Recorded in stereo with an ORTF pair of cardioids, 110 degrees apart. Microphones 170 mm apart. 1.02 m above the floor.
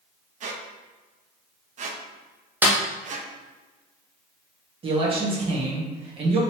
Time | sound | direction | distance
0.4 | a squeak | 45° right | 0.7 m
2.6 | a snare drum | 10° right | 0.9 m
4.8 | a man speaking | 35° right | 1.3 m